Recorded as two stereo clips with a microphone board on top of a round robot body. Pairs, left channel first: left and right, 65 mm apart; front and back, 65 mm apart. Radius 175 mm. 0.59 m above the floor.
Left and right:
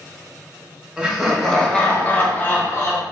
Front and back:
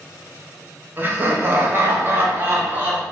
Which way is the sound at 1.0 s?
155° right.